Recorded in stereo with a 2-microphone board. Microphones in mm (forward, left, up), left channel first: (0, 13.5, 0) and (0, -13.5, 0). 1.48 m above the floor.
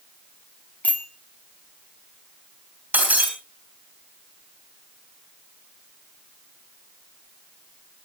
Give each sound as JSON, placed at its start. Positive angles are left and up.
{"t": 0.8, "sound": "a bicycle bell", "side_deg": 75, "distance_m": 3.5}
{"t": 2.9, "sound": "breaking glass", "side_deg": -80, "distance_m": 7.0}